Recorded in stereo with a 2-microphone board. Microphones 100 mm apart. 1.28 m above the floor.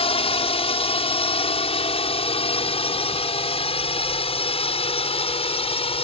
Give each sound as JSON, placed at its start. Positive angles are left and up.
{"t": 0.0, "sound": "a drone", "side_deg": 75}